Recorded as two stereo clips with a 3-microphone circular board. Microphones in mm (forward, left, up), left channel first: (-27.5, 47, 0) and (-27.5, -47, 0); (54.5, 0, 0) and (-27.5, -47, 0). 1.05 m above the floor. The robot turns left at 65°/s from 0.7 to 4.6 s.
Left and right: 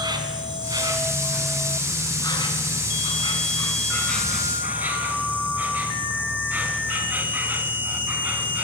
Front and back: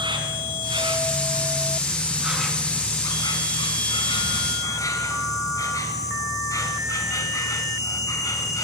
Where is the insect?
125° right, 2.5 m; by 8.6 s 20° right, 2.5 m.